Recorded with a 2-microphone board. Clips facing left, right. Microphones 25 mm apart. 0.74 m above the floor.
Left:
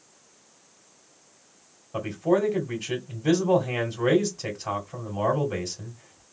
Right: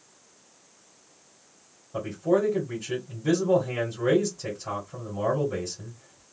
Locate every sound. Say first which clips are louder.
1.9 s a man speaking: left 1 dB; 40° left (ahead or behind), 1.9 m